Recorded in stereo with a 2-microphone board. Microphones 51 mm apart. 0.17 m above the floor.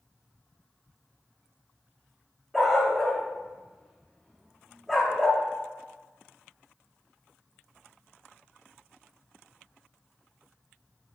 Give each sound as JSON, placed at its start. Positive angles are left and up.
{"t": 2.5, "sound": "a dog barking", "side_deg": 0, "distance_m": 4.5}